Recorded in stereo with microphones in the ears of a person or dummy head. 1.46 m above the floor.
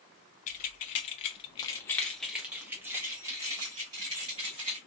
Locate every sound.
0.5 s keys jangling: 40° left (ahead or behind), 0.9 m; by 4.8 s 25° right (ahead or behind), 1.9 m